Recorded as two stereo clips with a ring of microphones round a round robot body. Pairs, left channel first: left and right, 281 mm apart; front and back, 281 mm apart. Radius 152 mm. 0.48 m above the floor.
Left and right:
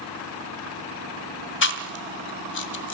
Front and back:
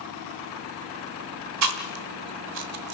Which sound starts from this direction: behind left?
Chewing, at 1.6 s.